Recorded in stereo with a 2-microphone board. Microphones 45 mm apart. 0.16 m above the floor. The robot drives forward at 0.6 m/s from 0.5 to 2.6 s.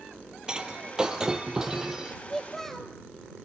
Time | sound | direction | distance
0.5 | breaking glass | 20° right (ahead or behind) | 2 m
2.3 | a child speaking | 10° left (ahead or behind) | 2.5 m